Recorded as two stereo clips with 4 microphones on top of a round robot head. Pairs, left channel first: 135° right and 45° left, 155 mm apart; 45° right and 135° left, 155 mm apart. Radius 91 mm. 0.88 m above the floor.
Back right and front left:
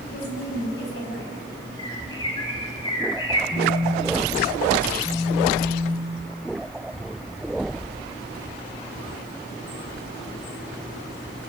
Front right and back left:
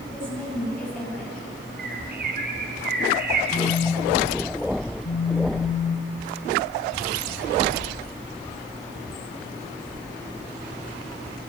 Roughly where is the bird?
Behind.